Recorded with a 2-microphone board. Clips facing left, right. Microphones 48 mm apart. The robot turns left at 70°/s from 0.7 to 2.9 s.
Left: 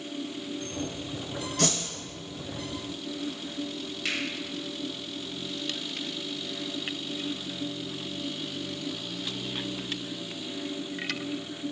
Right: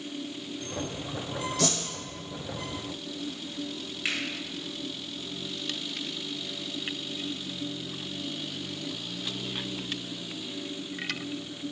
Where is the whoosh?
55° left (ahead or behind), 1.4 m; by 1.8 s 40° left (ahead or behind), 1.4 m.